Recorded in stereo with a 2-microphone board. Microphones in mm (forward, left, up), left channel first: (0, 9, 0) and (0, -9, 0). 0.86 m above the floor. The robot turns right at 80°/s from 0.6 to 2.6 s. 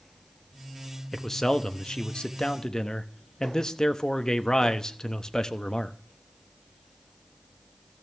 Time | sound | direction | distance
1.1 | a man speaking | 5° left | 1.0 m